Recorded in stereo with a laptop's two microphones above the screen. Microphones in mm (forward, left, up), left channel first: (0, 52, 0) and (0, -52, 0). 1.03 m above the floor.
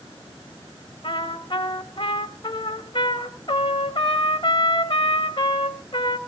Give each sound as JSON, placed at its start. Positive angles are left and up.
{"t": 1.0, "sound": "a trumpet", "side_deg": 50, "distance_m": 1.8}